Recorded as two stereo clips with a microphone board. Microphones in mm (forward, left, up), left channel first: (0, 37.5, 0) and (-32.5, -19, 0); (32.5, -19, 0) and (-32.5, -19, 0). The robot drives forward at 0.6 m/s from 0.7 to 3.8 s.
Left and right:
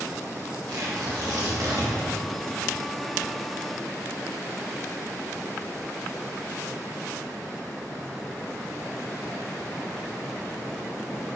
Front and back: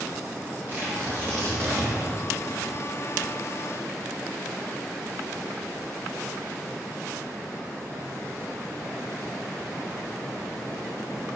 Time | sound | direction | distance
0.7 | tearing paper | 120° right | 2 m